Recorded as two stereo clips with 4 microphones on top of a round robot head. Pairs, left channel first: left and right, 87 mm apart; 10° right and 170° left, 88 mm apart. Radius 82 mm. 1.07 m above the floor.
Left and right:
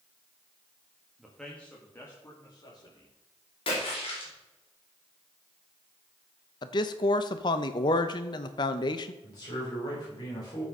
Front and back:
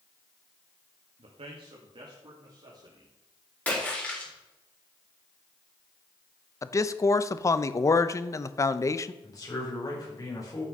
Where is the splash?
65° left, 4 m.